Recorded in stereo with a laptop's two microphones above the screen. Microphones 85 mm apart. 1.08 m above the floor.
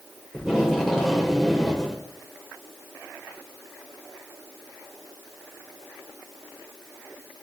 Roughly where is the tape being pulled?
Centre.